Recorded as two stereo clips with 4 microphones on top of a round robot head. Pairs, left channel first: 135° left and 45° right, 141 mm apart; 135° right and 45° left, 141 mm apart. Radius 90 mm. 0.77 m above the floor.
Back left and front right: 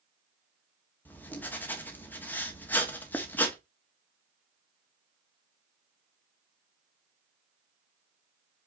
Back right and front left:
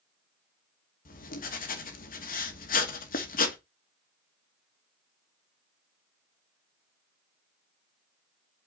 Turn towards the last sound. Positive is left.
turn(degrees=-150)